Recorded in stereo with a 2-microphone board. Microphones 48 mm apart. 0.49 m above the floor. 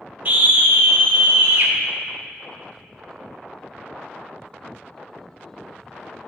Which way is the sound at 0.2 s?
40° right (ahead or behind).